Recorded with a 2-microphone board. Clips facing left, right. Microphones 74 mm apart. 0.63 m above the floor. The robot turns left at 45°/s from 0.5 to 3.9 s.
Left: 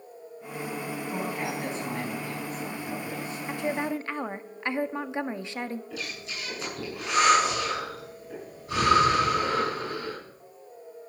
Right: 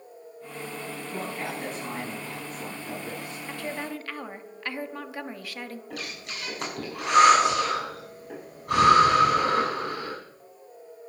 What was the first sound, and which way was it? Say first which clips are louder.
A man speaking: left 1 dB; 30° left.